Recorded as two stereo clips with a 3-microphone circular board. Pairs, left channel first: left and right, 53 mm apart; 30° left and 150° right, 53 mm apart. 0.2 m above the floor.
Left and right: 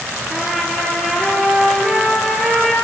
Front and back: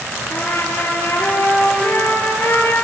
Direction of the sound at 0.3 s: 5° right.